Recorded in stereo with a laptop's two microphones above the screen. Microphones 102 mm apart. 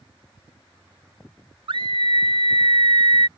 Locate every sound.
1.7 s a scream: 55° right (ahead or behind)